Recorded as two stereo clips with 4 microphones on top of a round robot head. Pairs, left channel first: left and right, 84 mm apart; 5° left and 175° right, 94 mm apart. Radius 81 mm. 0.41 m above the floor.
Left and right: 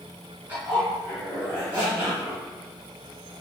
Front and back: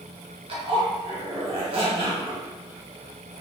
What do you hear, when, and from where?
0.5 s a zipper: 165° right, 1.0 m